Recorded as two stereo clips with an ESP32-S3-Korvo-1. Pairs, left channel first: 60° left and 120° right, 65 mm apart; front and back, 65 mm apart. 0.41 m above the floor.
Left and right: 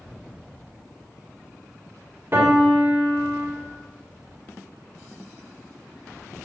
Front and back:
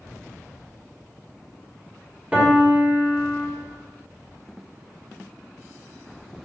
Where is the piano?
125° right, 1.4 m.